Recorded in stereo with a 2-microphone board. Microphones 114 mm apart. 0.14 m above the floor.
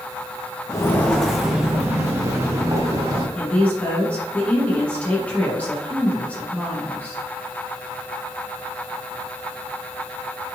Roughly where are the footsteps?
Left.